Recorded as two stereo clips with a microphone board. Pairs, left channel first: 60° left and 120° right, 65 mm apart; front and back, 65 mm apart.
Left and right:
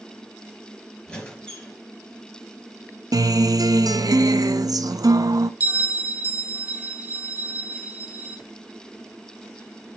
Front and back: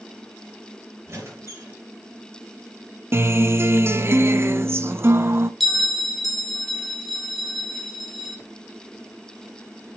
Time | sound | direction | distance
1.1 | a squeak | 130° left | 4.5 m
3.1 | a guitar | 130° right | 0.5 m
5.6 | a bell | 95° right | 0.8 m